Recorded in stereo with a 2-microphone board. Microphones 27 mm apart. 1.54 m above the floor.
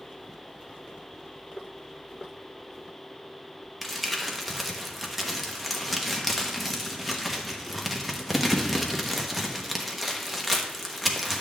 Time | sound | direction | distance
3.8 | crumpling | centre (ahead or behind) | 1.1 m